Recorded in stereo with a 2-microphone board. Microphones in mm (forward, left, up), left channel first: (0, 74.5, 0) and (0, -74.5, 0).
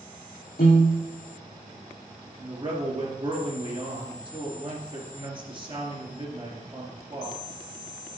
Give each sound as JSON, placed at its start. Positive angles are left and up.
{"t": 0.6, "sound": "a piano", "side_deg": 80, "distance_m": 3.5}
{"t": 2.4, "sound": "a man speaking", "side_deg": -35, "distance_m": 2.5}